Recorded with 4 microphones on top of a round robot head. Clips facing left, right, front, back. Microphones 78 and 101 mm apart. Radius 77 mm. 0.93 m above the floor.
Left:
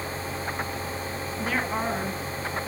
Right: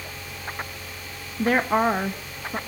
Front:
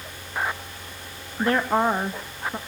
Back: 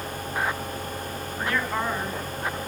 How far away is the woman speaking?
About 1.3 m.